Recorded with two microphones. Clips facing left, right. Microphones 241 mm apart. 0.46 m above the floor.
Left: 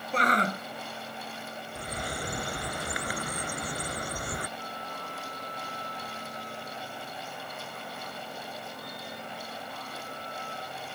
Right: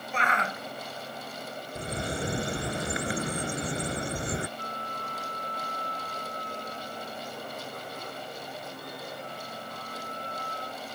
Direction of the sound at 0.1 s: 40° left (ahead or behind).